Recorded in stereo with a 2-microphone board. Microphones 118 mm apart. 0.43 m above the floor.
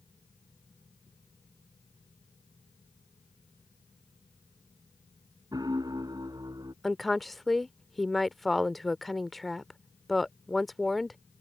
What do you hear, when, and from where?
5.5 s a piano: 35° right (ahead or behind)
6.8 s a woman speaking: centre (ahead or behind)